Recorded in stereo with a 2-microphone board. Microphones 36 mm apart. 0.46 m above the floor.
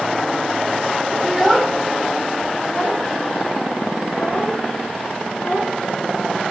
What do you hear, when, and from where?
1.2 s a child speaking: centre (ahead or behind), 0.6 m; by 6.5 s 80° left, 2.5 m